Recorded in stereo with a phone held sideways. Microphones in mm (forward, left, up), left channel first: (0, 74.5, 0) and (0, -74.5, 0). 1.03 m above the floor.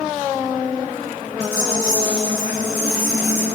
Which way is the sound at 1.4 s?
20° right (ahead or behind).